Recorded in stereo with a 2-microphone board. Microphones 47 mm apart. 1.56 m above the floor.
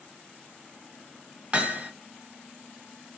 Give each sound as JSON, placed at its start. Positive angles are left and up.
{"t": 1.5, "sound": "hammering", "side_deg": -25, "distance_m": 0.9}